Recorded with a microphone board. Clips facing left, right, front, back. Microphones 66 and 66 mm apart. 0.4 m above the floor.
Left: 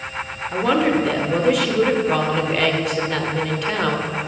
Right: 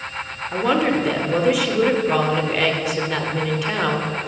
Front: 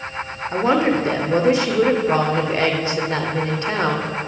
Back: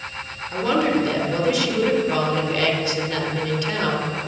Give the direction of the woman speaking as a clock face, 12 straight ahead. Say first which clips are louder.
Left 1 dB, front 2 dB; 12 o'clock.